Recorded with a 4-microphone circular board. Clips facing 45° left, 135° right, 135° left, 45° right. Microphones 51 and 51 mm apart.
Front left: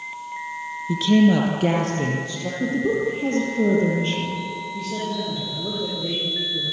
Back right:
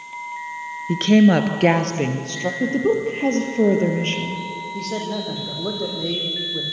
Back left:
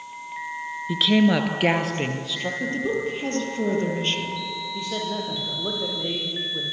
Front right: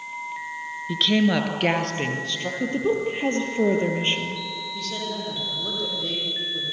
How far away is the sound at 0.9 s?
About 2.0 m.